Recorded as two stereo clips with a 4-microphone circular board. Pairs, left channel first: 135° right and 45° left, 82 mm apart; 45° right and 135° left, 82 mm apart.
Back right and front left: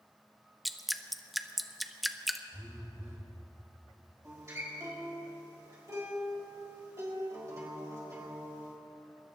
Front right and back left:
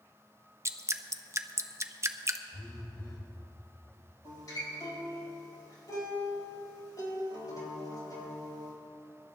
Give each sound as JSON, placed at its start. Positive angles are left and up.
{"t": 0.7, "sound": "dripping", "azimuth_deg": 130, "distance_m": 0.5}
{"t": 2.5, "sound": "a phone buzzing", "azimuth_deg": -15, "distance_m": 3.5}
{"t": 4.2, "sound": "a guitar", "azimuth_deg": -5, "distance_m": 4.0}